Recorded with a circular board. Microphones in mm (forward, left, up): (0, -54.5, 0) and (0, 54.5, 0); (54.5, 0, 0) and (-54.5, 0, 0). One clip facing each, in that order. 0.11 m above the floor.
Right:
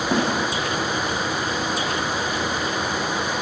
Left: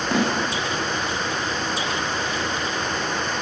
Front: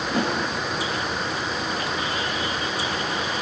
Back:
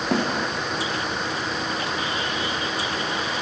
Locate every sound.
0.1 s a snare drum: 170° right, 9 m